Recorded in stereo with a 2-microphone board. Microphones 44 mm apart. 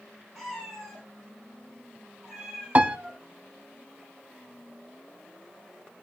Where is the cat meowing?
Centre (ahead or behind), 6.5 m; by 3.2 s 15° right (ahead or behind), 5.5 m.